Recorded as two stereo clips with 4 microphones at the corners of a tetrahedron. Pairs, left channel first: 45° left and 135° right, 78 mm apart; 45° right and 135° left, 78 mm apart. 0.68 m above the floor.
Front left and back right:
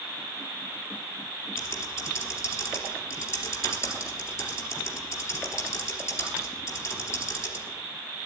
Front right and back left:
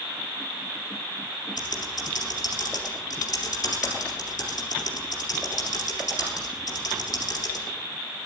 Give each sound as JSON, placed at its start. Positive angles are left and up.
{"t": 1.6, "sound": "typing on a keyboard", "azimuth_deg": -5, "distance_m": 3.5}